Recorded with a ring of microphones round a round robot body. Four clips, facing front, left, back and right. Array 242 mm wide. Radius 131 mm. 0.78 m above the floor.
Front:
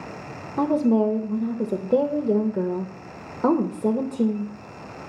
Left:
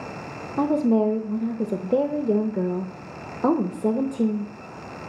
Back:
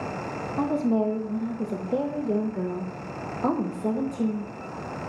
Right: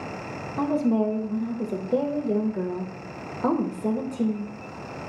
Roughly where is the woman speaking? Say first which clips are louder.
Left 3 dB, front 4 dB; ahead left.